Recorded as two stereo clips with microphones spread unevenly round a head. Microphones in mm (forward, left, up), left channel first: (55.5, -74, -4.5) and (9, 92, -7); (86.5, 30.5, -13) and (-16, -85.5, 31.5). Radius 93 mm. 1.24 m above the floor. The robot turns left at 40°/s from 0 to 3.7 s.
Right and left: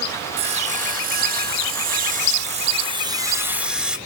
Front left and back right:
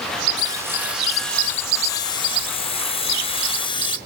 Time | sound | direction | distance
0.4 | sawing | 155° left | 0.6 m